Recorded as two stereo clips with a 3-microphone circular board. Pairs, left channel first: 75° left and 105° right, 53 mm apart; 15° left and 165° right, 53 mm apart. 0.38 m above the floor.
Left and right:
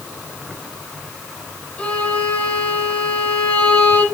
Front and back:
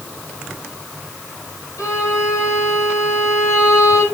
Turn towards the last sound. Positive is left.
turn(degrees=5)